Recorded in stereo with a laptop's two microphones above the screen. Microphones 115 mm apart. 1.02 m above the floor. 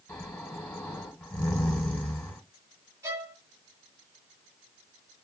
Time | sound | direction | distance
0.1 | snoring | 10° left (ahead or behind) | 2 m
3.0 | a violin | 25° right (ahead or behind) | 1.1 m